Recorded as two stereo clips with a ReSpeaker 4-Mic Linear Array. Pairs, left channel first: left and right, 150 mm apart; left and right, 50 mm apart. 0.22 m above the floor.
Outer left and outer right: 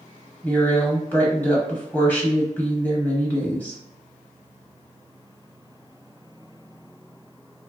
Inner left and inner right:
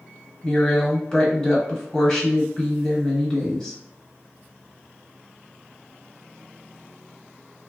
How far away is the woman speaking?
About 0.9 m.